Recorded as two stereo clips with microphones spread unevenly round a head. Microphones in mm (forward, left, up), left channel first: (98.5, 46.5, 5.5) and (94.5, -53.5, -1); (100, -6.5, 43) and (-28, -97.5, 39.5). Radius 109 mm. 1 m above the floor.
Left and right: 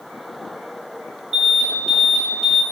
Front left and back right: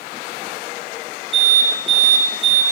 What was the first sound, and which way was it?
An alarm, 95° right.